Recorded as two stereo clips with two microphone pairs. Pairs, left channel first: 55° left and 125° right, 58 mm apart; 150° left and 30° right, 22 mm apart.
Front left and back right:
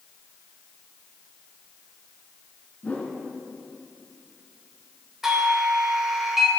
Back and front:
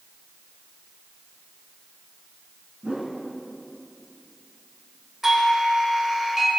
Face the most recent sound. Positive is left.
turn(degrees=-55)